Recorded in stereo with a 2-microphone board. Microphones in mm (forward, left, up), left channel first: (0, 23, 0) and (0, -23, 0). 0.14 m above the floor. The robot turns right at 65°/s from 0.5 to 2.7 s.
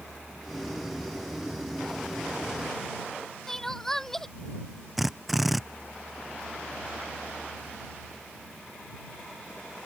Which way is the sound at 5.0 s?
5° right (ahead or behind).